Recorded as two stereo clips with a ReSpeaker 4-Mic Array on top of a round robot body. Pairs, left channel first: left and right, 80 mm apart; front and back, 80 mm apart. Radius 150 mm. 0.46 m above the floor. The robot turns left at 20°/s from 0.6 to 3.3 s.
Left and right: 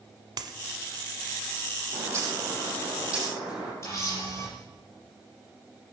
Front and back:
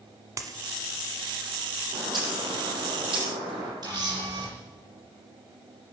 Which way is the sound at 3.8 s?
145° left.